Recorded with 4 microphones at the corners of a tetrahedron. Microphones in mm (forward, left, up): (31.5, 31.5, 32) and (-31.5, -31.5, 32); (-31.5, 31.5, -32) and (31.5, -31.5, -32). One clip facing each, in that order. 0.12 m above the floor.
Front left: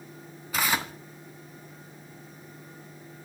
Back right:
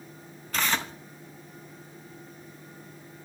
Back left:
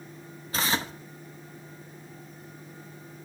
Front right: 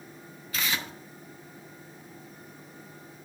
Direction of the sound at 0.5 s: 120° left.